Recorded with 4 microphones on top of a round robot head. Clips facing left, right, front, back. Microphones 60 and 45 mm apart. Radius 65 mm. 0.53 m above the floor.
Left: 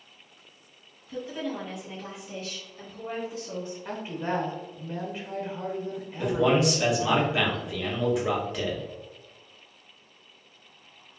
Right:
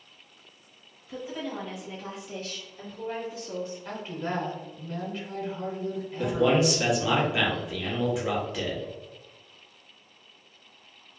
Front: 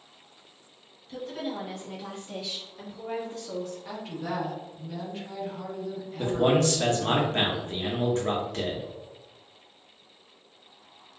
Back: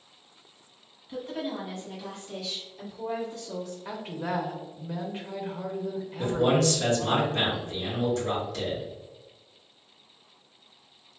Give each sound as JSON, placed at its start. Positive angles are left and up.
{"t": 1.1, "sound": "a woman speaking", "azimuth_deg": -155, "distance_m": 1.3}
{"t": 3.9, "sound": "a woman speaking", "azimuth_deg": 145, "distance_m": 0.7}
{"t": 6.2, "sound": "a man speaking", "azimuth_deg": 0, "distance_m": 1.0}